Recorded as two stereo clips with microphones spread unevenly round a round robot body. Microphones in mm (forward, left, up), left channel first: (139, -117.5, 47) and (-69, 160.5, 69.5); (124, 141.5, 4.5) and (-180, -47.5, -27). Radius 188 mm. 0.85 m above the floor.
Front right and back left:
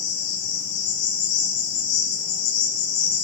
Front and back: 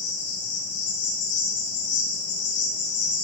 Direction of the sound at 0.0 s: 25° right.